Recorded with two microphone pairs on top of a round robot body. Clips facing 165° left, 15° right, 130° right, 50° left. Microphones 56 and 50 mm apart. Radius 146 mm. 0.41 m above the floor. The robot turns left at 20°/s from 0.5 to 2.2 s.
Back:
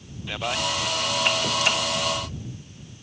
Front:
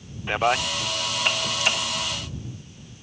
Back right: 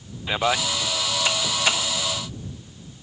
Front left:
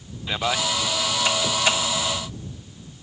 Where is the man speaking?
50° right.